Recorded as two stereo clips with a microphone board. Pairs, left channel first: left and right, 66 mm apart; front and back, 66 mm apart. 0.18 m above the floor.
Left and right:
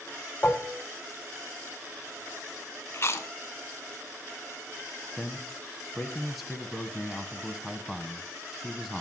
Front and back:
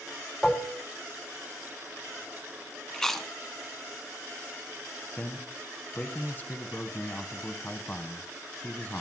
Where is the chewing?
75° left, 1.2 m.